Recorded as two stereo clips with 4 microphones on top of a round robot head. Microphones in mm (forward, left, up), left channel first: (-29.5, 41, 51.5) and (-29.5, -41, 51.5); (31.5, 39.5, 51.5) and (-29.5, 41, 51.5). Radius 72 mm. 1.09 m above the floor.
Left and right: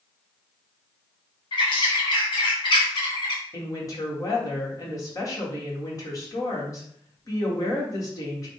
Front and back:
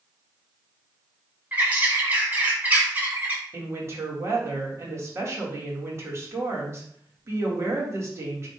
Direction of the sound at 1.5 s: 115° left.